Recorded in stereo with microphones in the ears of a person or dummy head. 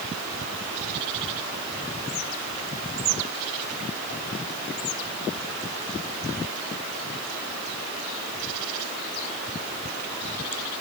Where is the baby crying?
No baby crying in this recording.